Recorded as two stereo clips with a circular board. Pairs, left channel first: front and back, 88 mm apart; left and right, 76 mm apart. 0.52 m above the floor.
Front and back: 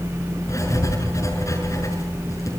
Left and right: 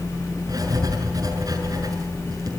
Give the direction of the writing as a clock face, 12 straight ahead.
2 o'clock.